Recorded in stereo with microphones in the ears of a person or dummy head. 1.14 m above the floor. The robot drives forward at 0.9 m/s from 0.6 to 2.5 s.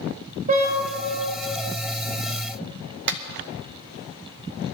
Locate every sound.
0.5 s a car horn: 45° right (ahead or behind), 2.5 m; by 0.8 s 40° right (ahead or behind), 3 m
3.1 s a clap: 60° right (ahead or behind), 0.8 m